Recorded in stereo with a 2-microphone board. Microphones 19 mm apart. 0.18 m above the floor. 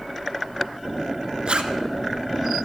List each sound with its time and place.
1.5 s a zipper: 65° right (ahead or behind), 0.9 m